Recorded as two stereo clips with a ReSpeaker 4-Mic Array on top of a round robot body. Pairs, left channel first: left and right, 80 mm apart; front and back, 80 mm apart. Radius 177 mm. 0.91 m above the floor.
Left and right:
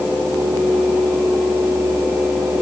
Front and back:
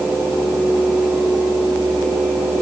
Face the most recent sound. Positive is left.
No sound to turn to.